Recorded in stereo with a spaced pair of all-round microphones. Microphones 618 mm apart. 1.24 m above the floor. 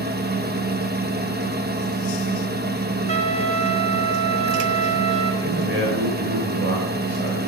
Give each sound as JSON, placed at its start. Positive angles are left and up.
{"t": 0.0, "sound": "a fan", "side_deg": -15, "distance_m": 1.2}
{"t": 3.1, "sound": "a trumpet", "side_deg": -45, "distance_m": 1.6}
{"t": 5.4, "sound": "a man speaking", "side_deg": -20, "distance_m": 6.5}